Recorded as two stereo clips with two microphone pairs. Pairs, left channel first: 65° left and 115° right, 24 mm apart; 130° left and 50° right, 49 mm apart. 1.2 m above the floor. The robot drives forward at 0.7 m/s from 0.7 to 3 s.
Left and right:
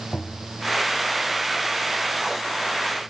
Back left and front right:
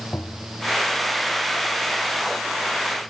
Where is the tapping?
105° left.